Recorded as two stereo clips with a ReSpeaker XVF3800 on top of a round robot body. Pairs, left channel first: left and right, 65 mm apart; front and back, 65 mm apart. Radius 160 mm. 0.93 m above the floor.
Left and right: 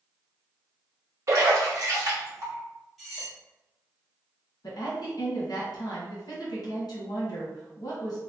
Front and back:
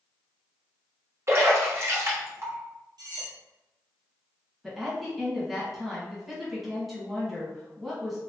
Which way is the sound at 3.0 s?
Straight behind.